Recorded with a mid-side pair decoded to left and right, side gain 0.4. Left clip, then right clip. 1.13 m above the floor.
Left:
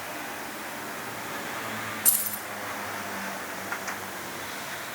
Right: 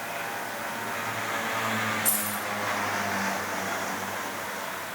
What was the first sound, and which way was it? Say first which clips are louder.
Keys jangling: right 2 dB; 45° left.